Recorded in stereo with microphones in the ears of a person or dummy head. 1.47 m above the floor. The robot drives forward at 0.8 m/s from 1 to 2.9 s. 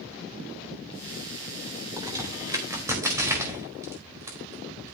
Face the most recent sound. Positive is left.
turn(degrees=-15)  # may be behind; listen again after turning